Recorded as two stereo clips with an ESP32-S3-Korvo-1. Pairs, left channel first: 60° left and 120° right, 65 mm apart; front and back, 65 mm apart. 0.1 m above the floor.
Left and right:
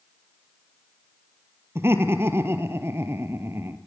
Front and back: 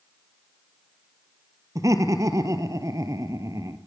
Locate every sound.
1.8 s laughter: 165° right, 2.0 m